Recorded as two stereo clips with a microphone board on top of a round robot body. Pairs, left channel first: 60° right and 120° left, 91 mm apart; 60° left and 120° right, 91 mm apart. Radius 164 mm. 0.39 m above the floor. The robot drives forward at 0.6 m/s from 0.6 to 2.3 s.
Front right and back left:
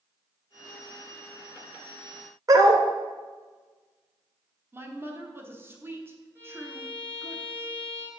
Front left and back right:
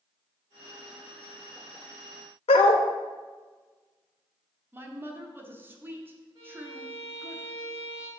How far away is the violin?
About 2.0 m.